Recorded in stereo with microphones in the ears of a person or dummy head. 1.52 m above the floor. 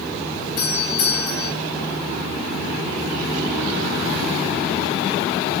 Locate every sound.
0.6 s a doorbell: 65° left (ahead or behind), 9 m